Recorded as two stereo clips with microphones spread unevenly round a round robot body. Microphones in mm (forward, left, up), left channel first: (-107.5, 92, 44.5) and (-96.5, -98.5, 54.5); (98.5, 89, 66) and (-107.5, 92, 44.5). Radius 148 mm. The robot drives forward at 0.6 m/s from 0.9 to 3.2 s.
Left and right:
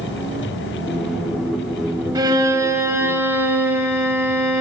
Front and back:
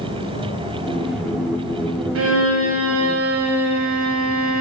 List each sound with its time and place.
2.1 s a violin: 160° right, 1.3 m; by 4.6 s 165° right, 1.9 m